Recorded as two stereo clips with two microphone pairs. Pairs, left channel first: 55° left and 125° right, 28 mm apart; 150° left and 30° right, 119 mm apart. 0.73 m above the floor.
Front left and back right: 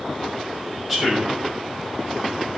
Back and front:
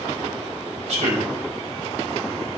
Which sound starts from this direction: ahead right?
A man speaking, at 0.9 s.